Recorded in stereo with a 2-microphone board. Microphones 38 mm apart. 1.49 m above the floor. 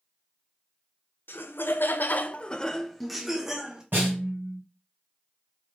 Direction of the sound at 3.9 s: 65° right (ahead or behind).